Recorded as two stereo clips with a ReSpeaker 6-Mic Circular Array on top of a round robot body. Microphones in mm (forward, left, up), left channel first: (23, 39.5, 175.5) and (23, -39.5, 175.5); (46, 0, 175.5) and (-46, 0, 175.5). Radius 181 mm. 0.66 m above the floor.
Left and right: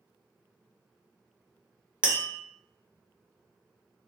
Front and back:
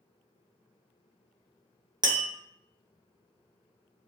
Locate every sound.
2.0 s tapping: 160° right, 0.8 m